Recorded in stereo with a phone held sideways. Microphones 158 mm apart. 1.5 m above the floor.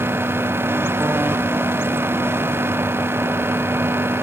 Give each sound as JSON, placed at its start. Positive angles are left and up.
{"t": 0.0, "sound": "a fan", "side_deg": -15, "distance_m": 0.9}